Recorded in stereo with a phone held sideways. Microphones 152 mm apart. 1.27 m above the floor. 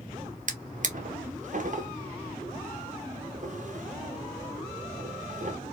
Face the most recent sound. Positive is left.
turn(degrees=-55)  # may be behind; listen again after turning